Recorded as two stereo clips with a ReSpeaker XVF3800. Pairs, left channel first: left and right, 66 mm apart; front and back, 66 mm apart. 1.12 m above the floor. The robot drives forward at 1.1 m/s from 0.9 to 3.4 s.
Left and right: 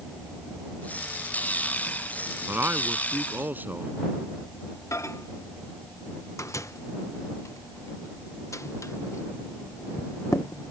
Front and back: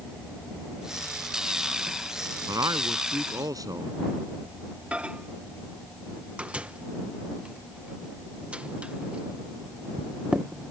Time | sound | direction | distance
2.5 | a man speaking | 150° right | ?
4.9 | a microwave | 110° left | ?